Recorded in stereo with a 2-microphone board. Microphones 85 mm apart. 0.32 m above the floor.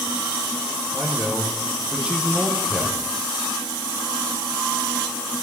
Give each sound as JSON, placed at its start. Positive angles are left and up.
{"t": 0.9, "sound": "a man speaking", "side_deg": -15, "distance_m": 10.0}